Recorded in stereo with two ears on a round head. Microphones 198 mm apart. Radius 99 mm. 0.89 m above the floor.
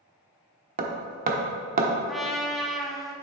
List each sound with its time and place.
0.8 s hammering: 40° right (ahead or behind), 1.0 m
2.1 s a trumpet: centre (ahead or behind), 0.9 m